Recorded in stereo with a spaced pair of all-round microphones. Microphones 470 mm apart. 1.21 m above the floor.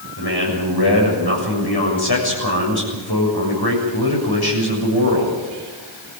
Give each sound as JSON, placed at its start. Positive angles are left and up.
{"t": 0.2, "sound": "a man speaking", "side_deg": 55, "distance_m": 7.0}